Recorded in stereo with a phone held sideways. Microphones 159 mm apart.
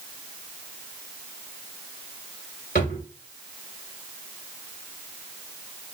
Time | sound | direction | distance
2.8 | a drawer | 80° left | 3 m